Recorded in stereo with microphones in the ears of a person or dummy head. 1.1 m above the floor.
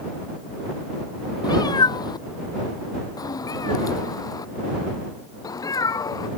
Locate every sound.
1.4 s a cat meowing: 20° left (ahead or behind); by 6.3 s 15° left (ahead or behind)